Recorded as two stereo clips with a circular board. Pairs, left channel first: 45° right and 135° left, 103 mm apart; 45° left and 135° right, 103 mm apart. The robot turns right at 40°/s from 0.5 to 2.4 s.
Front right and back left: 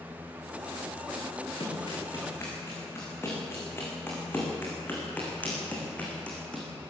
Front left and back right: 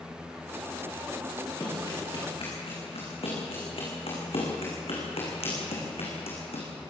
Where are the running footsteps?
15° right, 8 m; by 6.7 s 35° left, 5.5 m.